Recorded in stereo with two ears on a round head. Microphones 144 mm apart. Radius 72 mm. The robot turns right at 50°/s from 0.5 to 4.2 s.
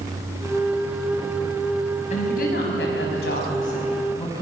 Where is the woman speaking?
45° left, 5 m; by 4.4 s 150° left, 5 m.